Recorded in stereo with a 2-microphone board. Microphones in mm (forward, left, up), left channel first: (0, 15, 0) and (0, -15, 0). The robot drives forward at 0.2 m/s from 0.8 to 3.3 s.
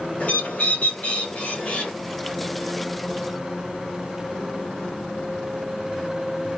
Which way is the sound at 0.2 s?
50° left (ahead or behind).